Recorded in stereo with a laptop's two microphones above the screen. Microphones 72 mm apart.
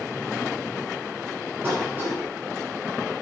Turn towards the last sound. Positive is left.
turn(degrees=-30)  # may be behind; listen again after turning